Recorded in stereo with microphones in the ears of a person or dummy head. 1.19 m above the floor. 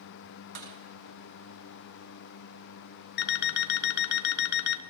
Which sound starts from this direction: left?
An alarm clock, at 3.2 s.